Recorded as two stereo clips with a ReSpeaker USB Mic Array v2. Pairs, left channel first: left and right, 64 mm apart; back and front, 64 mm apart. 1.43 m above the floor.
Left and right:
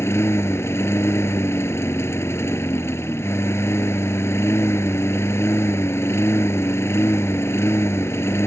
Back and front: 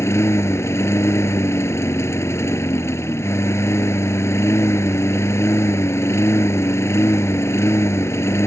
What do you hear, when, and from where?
0.0 s a lawn mower: 135° left